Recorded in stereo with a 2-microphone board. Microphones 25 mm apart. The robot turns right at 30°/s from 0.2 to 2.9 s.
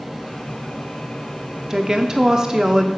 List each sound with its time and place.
1.7 s a woman speaking: 30° right (ahead or behind), 0.7 m; by 2.9 s 25° right (ahead or behind), 0.7 m